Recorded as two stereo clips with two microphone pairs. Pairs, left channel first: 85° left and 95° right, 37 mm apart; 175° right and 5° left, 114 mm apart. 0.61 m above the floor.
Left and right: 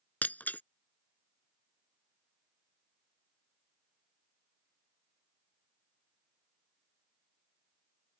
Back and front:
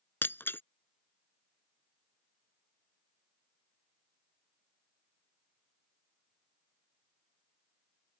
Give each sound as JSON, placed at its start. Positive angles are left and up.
{"t": 0.2, "sound": "breaking glass", "azimuth_deg": 115}